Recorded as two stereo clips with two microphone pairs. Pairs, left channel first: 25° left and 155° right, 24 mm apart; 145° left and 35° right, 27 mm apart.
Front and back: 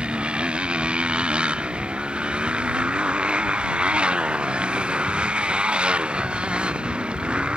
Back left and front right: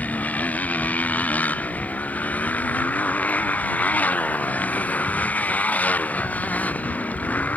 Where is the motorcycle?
165° left.